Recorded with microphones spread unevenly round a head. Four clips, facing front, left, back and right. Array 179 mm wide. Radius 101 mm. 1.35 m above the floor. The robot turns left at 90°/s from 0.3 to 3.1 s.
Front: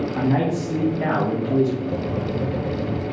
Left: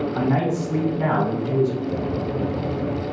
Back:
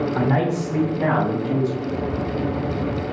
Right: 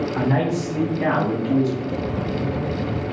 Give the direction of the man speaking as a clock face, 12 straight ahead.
6 o'clock.